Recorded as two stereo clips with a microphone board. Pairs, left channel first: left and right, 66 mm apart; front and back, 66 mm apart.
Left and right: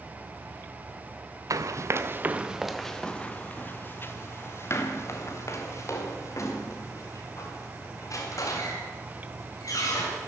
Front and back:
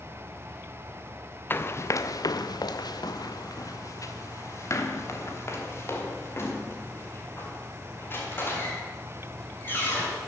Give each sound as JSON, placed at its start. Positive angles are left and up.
{"t": 1.5, "sound": "running footsteps", "azimuth_deg": -60, "distance_m": 1.1}